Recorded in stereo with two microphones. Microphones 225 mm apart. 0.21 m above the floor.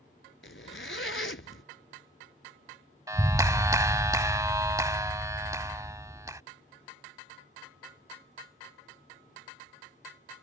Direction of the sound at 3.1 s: 15° right (ahead or behind).